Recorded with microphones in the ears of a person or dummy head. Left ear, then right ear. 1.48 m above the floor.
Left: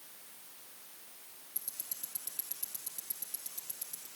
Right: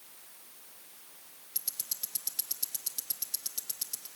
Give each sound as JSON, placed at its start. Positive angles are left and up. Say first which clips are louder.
{"t": 1.6, "sound": "ticking", "louder": "right 8 dB", "side_deg": -40, "distance_m": 0.9}